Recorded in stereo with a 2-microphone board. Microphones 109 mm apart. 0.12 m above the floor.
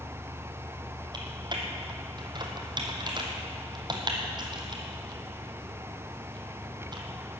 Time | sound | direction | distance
1.1 | typing on a keyboard | 45° right (ahead or behind) | 1.9 m